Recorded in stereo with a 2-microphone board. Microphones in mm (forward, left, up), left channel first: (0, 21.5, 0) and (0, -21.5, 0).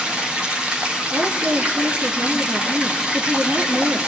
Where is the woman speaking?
45° right (ahead or behind), 3 m.